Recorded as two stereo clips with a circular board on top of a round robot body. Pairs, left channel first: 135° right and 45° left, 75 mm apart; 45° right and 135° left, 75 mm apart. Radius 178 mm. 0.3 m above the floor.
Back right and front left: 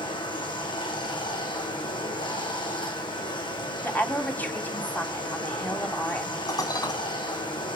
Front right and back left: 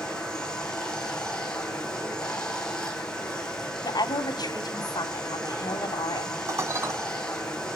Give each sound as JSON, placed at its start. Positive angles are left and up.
{"t": 0.0, "sound": "running water", "azimuth_deg": -125, "distance_m": 4.5}
{"t": 3.8, "sound": "a woman speaking", "azimuth_deg": -70, "distance_m": 3.0}
{"t": 6.5, "sound": "dishes clattering", "azimuth_deg": -175, "distance_m": 2.5}